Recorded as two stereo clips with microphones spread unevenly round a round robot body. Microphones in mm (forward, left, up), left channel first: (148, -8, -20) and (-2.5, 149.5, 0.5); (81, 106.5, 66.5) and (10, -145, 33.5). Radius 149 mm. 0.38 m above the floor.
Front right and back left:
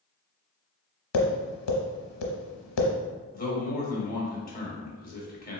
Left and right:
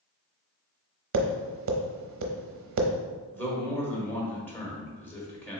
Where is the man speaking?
10° right, 1.4 m.